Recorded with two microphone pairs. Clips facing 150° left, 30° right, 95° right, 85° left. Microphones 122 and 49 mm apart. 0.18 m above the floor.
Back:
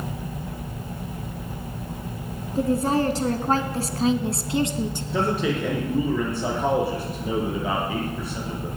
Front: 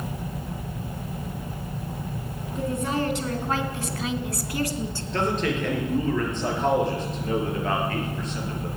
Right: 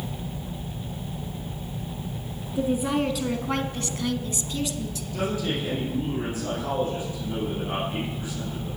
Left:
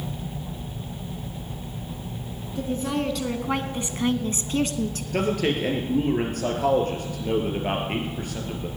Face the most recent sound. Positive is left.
turn(degrees=70)